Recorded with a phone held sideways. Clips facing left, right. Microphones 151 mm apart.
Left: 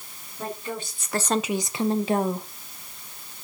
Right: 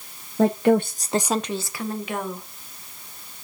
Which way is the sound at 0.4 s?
85° right.